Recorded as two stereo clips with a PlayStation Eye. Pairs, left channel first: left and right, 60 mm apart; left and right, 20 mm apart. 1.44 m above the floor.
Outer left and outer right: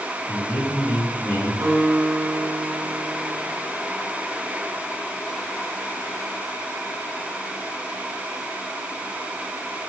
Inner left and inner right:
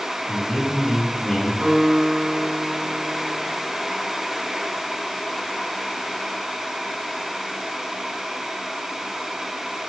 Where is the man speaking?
40° left (ahead or behind), 3 m.